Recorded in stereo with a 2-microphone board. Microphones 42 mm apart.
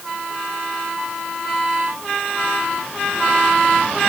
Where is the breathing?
I don't hear breathing.